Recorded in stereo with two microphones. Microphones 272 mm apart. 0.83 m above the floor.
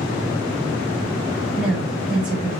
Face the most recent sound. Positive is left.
turn(degrees=-5)  # may be behind; listen again after turning